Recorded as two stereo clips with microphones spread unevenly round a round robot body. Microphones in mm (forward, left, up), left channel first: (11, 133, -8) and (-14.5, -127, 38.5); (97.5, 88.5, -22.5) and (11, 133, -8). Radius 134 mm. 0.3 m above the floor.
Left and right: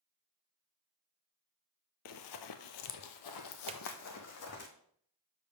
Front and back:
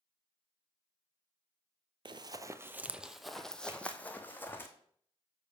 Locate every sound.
2.0 s running footsteps: 120° left, 0.6 m; by 4.7 s 45° left, 1.4 m
3.7 s a drawer: 155° right, 0.5 m